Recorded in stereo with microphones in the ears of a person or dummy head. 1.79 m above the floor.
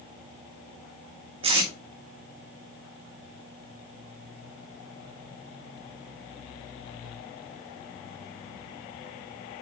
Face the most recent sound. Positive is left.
turn(degrees=-30)  # may be behind; listen again after turning